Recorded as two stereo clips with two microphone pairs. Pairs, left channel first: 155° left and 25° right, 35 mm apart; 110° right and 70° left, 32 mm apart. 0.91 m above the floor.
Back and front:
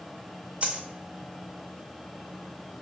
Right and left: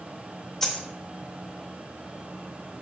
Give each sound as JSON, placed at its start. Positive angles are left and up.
{"t": 0.6, "sound": "a dropped coin", "azimuth_deg": -25, "distance_m": 0.6}